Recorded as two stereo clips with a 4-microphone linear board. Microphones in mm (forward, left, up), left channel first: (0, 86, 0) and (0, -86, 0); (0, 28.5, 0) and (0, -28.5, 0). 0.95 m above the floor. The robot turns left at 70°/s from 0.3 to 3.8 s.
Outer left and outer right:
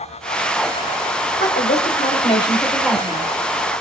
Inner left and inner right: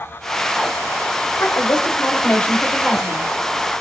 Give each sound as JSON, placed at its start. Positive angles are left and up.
{"t": 1.4, "sound": "a woman speaking", "azimuth_deg": 100, "distance_m": 2.5}